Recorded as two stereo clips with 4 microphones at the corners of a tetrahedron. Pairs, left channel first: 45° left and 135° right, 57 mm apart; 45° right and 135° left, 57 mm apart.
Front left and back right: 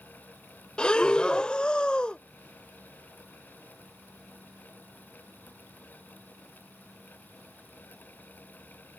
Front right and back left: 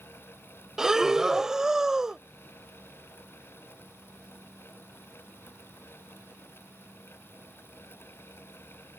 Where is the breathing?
75° left.